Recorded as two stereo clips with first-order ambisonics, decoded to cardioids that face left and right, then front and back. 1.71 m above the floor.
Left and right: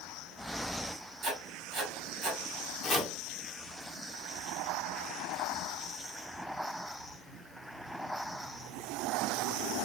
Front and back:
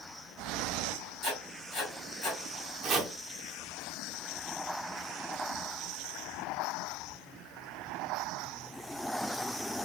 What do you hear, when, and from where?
1.2 s writing: 50° right, 1.6 m
2.8 s chopping: 145° left, 0.7 m